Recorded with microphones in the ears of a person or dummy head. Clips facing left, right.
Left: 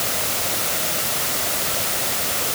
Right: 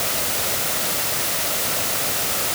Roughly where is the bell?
No bell in this recording.